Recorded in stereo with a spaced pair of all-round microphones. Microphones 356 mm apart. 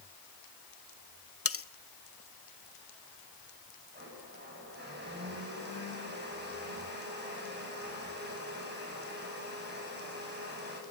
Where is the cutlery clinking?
40° left (ahead or behind), 0.6 m.